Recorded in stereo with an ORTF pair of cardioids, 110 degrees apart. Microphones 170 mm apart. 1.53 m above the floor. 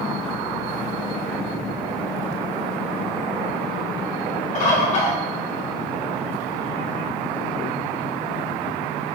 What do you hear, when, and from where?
4.5 s a bird: 45° left, 1.2 m